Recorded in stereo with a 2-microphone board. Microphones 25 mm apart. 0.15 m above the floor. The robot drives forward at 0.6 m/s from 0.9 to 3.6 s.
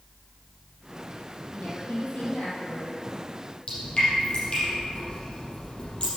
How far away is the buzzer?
I don't hear a buzzer.